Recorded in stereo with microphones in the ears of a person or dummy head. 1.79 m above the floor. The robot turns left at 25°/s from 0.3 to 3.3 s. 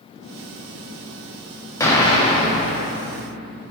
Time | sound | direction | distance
1.8 | an explosion | 160° left | 0.8 m